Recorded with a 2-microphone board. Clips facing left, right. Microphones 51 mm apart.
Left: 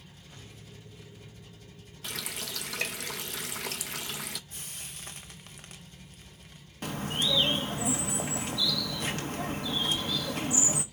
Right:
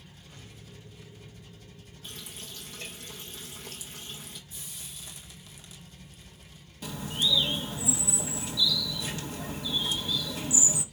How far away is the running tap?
About 0.5 m.